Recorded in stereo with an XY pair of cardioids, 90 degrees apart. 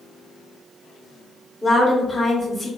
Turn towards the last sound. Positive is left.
turn(degrees=10)